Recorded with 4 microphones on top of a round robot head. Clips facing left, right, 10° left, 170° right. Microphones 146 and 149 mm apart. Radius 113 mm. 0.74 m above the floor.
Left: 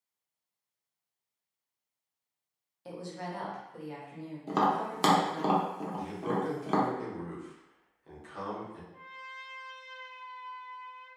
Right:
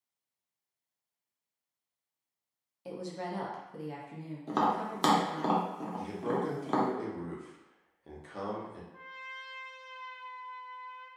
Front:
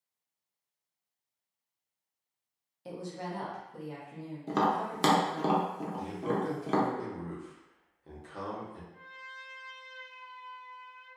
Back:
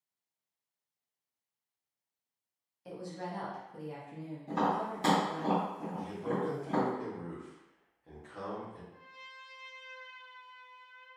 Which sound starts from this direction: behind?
A trumpet, at 8.9 s.